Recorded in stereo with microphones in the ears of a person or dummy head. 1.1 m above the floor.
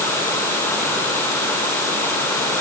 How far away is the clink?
I don't hear a clink.